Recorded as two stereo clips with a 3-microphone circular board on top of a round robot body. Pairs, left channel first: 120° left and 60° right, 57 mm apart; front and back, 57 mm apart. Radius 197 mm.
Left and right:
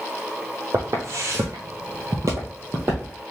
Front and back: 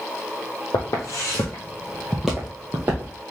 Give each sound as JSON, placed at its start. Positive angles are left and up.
{"t": 0.7, "sound": "footsteps", "azimuth_deg": -15, "distance_m": 1.1}